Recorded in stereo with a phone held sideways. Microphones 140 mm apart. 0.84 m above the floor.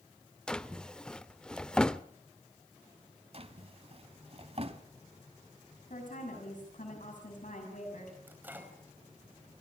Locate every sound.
0.5 s a drawer: 5° left (ahead or behind), 0.5 m
3.3 s a drawer: 45° right (ahead or behind), 1.2 m
5.9 s a woman speaking: 70° left (ahead or behind), 6 m
8.3 s a microwave: 15° right (ahead or behind), 4.5 m